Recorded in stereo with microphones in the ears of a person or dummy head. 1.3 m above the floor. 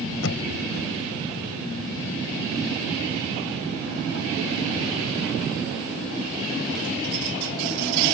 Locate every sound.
0.2 s knocking: 70° left (ahead or behind)